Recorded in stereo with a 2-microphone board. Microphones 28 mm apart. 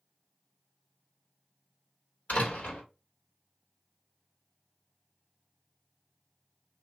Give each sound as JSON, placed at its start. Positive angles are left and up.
{"t": 2.3, "sound": "a door slam", "side_deg": 75, "distance_m": 1.6}